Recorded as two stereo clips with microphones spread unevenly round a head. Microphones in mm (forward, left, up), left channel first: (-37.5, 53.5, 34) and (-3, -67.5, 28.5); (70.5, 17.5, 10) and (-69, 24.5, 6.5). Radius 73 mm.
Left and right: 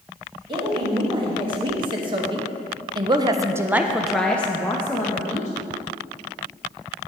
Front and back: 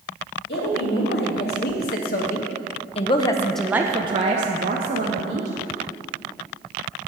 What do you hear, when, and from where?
0.5 s a woman speaking: 20° right, 2 m; by 5.5 s 175° left, 1.3 m